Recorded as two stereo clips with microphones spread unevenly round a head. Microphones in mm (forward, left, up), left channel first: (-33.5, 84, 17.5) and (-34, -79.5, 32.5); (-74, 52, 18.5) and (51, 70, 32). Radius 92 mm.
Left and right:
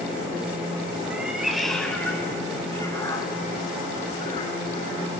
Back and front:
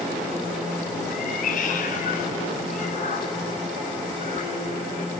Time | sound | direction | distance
1.1 | a cat meowing | 170° right | 2.0 m